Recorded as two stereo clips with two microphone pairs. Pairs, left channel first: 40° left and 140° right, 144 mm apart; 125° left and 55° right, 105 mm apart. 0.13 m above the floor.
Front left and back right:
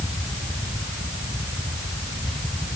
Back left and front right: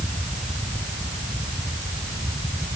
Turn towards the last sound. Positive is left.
No sound to turn to.